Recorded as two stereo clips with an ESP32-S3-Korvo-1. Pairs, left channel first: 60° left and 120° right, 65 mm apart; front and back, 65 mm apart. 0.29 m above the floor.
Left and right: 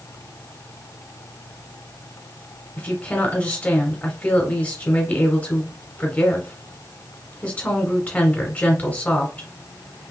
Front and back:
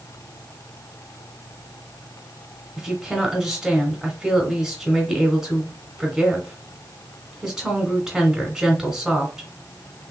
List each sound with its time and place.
2.8 s a woman speaking: 110° left, 1.2 m